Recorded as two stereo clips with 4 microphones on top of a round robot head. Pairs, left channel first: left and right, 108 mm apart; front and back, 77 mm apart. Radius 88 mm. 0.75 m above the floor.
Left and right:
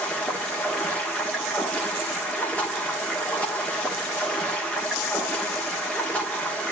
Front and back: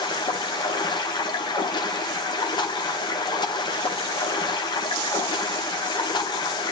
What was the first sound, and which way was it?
Running water, 10° left.